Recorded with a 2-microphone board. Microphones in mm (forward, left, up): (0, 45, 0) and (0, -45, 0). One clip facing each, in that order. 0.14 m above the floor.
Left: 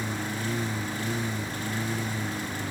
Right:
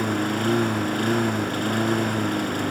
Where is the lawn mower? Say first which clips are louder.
Right 9 dB; 60° right (ahead or behind).